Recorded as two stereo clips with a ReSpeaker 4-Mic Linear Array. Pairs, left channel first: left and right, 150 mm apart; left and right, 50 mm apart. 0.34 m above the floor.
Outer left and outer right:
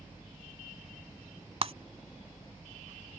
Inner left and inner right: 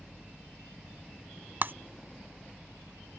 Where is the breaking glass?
45° right (ahead or behind).